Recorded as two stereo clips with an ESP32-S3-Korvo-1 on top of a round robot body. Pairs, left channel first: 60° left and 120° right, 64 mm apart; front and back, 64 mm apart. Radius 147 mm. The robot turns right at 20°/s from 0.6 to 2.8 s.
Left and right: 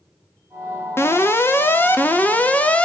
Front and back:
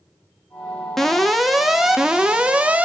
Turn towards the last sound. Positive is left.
turn(degrees=120)